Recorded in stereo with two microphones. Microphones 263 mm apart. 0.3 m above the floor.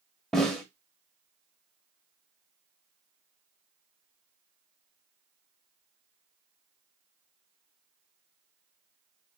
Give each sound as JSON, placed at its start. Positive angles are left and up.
{"t": 0.3, "sound": "a snare drum", "side_deg": 0, "distance_m": 0.8}